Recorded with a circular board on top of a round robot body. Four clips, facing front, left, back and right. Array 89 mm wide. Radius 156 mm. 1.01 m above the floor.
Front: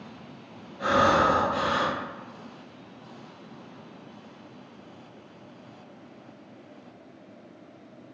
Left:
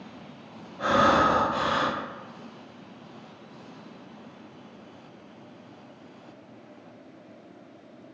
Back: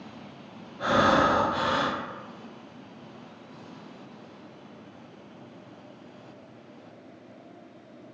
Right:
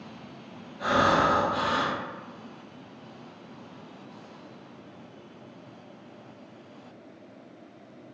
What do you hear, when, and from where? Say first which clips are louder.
0.8 s breathing: left 2 dB, even; 100° left, 1.0 m